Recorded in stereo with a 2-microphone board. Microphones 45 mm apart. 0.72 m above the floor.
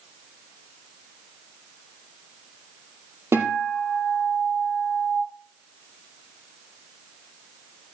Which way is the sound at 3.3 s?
80° right.